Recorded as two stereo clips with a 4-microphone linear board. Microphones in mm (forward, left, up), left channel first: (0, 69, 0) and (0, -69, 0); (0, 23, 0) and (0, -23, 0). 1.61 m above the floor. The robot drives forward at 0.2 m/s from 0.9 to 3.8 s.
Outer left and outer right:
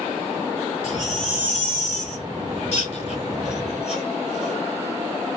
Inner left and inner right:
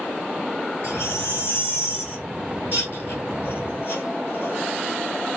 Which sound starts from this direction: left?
A baby crying, at 0.8 s.